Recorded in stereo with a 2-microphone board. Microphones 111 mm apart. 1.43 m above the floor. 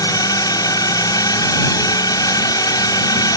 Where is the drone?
35° left (ahead or behind).